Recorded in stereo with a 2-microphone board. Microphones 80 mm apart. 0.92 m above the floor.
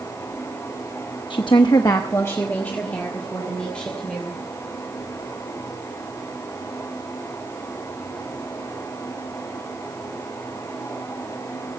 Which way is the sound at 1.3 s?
70° left (ahead or behind).